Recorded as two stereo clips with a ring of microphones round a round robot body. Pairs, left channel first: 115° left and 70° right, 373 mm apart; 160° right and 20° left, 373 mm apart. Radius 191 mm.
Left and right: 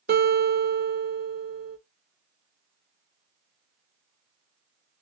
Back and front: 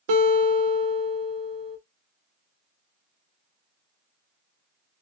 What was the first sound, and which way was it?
A guitar, straight ahead.